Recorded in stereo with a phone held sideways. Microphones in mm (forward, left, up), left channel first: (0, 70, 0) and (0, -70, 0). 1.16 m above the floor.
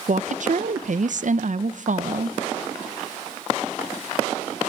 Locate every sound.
0.1 s a woman speaking: 60° right (ahead or behind), 0.7 m